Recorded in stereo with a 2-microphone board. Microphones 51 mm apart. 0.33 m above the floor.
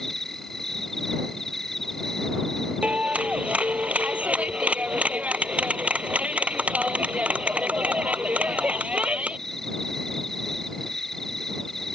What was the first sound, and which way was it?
An insect, 5° left (ahead or behind).